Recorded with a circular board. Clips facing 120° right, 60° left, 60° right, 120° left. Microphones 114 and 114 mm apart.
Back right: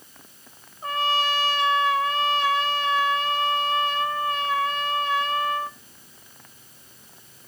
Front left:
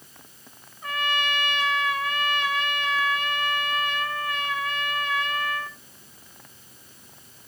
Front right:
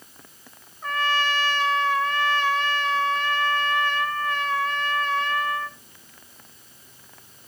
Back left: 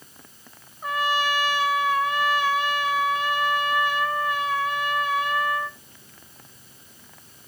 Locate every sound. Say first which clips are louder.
0.8 s a trumpet: back right 4 dB, back left 1 dB; 165° right, 1.0 m